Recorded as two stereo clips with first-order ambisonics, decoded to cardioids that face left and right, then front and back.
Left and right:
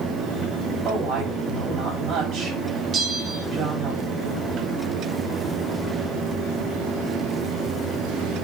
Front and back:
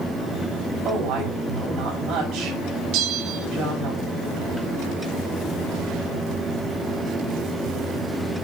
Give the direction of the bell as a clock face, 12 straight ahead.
5 o'clock.